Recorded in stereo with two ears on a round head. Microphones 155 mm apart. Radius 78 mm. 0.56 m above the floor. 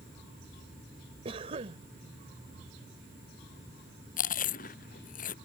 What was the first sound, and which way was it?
A cough, 35° right (ahead or behind).